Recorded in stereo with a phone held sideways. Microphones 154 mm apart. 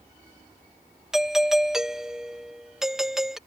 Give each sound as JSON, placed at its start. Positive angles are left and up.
{"t": 1.1, "sound": "a doorbell", "side_deg": -5}